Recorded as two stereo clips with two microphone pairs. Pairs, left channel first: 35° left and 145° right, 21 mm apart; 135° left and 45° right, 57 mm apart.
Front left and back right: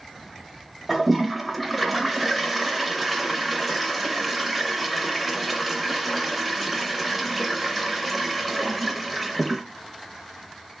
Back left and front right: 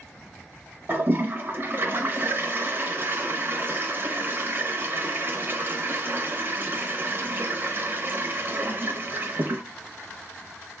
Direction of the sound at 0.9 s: 60° right.